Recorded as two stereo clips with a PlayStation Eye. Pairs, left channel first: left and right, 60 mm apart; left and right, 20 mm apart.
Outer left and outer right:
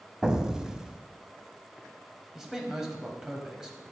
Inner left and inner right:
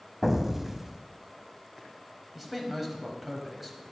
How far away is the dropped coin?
I don't hear a dropped coin.